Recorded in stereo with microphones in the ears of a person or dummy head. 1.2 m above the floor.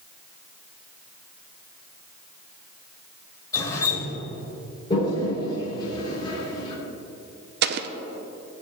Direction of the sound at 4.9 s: 30° left (ahead or behind).